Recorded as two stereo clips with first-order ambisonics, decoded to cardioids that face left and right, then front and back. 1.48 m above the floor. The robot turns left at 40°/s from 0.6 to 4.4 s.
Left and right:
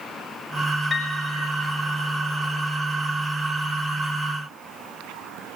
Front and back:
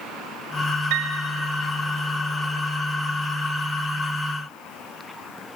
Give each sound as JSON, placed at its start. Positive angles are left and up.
{"t": 0.9, "sound": "a piano", "azimuth_deg": 170, "distance_m": 4.0}